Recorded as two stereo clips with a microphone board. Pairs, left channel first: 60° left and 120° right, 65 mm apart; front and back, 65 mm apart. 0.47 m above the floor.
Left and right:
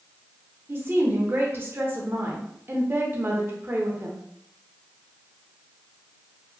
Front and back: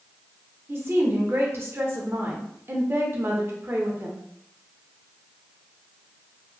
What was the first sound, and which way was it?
A woman speaking, 155° right.